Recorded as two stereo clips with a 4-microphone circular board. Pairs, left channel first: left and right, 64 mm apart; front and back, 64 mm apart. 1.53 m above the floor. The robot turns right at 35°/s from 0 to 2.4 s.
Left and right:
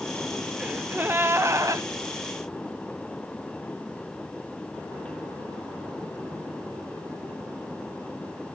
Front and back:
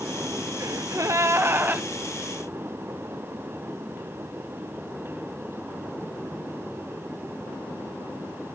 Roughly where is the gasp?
Behind.